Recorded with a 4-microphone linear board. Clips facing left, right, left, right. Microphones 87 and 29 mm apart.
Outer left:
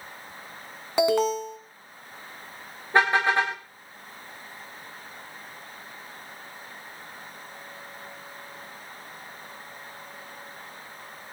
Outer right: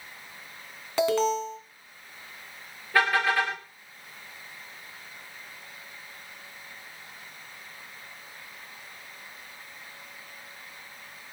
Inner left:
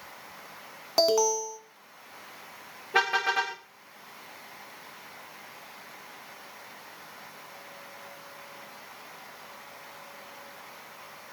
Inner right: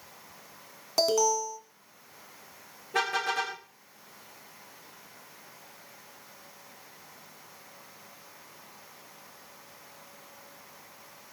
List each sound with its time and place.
1.0 s an alarm: 15° left (ahead or behind), 2 m
2.9 s a car horn: 25° left (ahead or behind), 6.5 m